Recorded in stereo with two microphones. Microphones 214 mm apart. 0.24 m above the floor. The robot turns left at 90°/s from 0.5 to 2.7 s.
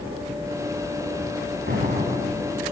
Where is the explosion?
95° right, 2 m; by 2.6 s 175° left, 2 m.